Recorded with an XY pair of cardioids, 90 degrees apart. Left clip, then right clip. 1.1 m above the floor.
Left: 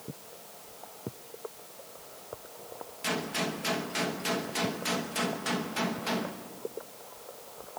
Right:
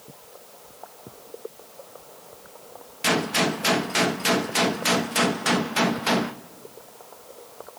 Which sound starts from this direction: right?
A gunshot, at 3.0 s.